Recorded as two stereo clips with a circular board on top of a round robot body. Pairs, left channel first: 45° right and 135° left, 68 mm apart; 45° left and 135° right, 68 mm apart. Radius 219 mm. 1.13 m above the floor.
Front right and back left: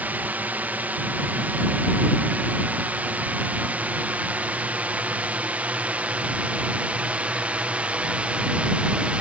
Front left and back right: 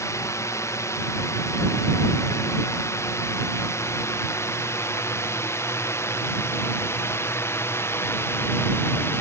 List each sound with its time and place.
0.0 s a drone: 75° left; by 9.2 s 70° left